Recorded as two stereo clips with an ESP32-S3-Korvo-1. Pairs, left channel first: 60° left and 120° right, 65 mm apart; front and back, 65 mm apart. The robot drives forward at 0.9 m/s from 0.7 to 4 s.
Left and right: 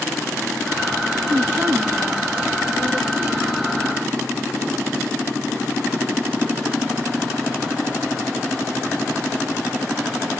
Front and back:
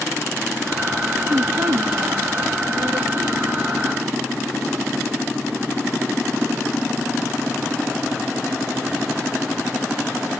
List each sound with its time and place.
1.3 s a woman speaking: 160° right, 0.7 m; by 3.5 s 175° right, 2.5 m